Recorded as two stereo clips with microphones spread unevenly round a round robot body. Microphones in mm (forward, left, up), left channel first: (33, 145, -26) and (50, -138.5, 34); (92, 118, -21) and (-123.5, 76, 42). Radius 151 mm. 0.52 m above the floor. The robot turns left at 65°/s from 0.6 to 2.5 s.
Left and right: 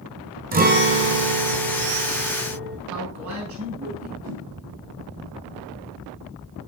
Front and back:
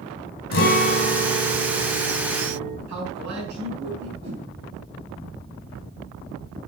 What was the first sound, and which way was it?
A guitar, 25° right.